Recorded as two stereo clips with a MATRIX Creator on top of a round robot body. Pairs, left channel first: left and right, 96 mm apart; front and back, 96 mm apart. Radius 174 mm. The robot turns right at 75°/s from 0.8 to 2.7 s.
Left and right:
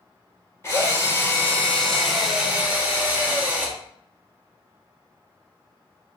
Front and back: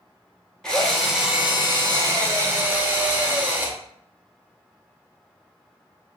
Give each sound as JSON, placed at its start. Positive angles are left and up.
{"t": 0.6, "sound": "a drill", "azimuth_deg": 80, "distance_m": 1.3}